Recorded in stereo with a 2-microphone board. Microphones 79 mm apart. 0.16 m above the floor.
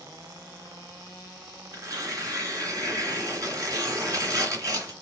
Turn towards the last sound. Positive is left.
turn(degrees=-45)  # may be behind; listen again after turning